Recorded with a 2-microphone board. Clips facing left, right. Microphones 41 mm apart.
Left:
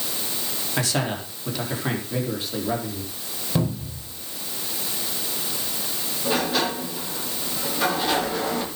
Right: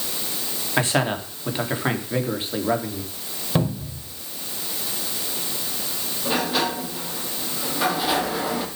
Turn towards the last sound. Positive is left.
turn(degrees=-10)  # may be behind; listen again after turning